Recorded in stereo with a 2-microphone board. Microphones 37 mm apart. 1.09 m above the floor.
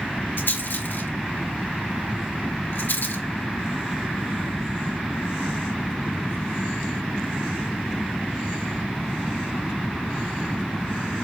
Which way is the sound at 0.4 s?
70° left (ahead or behind).